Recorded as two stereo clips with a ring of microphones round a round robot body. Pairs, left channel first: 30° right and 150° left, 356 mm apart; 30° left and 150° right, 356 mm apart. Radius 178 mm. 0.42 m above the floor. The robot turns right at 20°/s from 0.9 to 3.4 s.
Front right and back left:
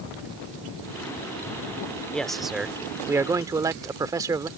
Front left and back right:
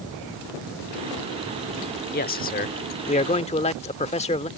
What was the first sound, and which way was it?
A man speaking, 55° left.